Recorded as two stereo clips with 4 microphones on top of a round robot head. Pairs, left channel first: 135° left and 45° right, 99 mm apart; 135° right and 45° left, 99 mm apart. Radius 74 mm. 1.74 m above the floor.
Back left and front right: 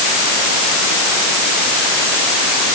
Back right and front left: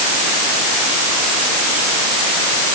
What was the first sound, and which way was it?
Only background noise.